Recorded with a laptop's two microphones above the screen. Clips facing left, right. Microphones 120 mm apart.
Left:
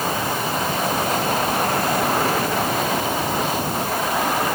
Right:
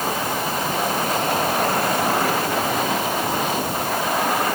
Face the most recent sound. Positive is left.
No sound to turn to.